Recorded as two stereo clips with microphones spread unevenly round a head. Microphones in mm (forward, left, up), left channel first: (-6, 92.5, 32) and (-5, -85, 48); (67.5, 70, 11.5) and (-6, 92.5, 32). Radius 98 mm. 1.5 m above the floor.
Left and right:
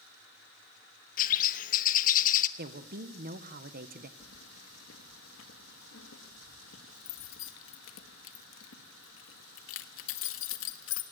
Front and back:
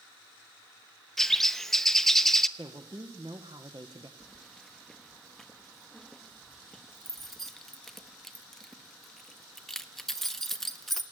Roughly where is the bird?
Left.